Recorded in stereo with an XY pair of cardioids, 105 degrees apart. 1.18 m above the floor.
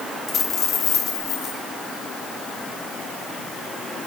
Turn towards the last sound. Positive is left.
turn(degrees=65)